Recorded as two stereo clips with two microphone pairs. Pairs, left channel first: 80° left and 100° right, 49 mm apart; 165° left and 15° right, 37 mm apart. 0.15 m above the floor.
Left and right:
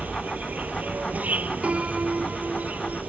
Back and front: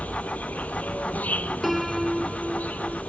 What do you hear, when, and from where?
0.0 s an insect: 155° right
1.6 s a piano: 115° right